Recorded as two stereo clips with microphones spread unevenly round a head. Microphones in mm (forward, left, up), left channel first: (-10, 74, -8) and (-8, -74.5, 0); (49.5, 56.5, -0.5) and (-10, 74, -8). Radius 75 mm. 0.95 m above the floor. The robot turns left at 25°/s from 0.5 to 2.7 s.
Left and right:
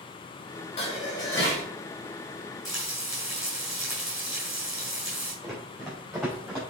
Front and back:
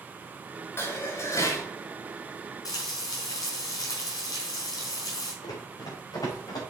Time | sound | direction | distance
0.8 | dishes clattering | 35° left | 3.5 m
2.6 | frying | straight ahead | 4.5 m
5.4 | running footsteps | 5° left | 4 m